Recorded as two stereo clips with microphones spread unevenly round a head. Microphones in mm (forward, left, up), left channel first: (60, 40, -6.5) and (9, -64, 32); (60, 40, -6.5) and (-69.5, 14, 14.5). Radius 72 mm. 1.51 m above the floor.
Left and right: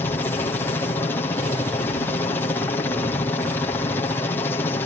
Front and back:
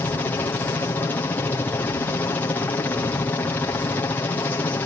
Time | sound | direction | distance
0.0 | a helicopter | 65° left | ?